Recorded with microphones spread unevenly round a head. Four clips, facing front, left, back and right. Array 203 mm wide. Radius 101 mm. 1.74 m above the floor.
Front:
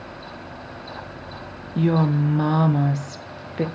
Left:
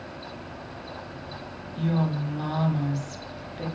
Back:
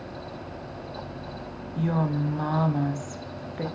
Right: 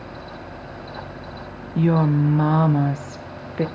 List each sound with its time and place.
1.8 s a woman speaking: 55° right, 1.2 m